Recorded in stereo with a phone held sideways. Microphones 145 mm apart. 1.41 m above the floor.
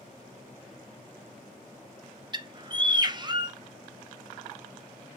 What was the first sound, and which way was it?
A bird, 30° right (ahead or behind).